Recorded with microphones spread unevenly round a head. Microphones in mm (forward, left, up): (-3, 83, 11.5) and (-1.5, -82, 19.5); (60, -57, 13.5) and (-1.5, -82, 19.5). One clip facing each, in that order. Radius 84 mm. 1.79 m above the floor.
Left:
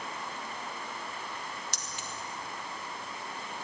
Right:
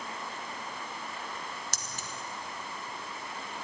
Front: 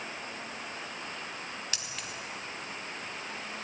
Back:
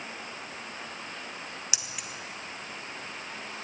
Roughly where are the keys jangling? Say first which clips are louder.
Even, even; right.